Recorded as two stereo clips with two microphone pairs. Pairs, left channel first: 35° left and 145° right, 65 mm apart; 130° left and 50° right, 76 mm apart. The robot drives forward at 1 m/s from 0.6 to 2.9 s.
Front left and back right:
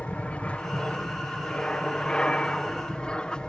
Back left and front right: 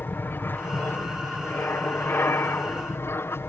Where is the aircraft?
95° left; by 3.5 s 105° left.